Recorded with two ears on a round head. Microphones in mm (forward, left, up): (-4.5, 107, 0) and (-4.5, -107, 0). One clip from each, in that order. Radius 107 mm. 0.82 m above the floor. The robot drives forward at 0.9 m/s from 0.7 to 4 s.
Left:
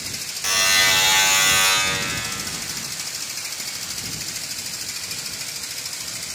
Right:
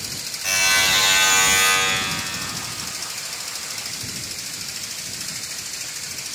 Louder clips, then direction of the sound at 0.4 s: Left 1 dB; 55° left (ahead or behind).